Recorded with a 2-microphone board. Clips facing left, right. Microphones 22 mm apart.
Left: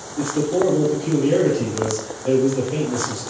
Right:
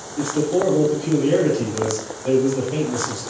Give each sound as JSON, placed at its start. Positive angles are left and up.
{"t": 0.2, "sound": "a man speaking", "side_deg": -25, "distance_m": 1.5}